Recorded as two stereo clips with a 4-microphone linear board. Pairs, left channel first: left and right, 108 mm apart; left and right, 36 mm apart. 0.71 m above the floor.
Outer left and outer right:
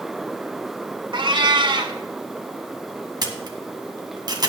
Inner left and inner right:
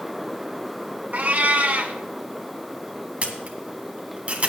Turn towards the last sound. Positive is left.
turn(degrees=-40)  # may be behind; listen again after turning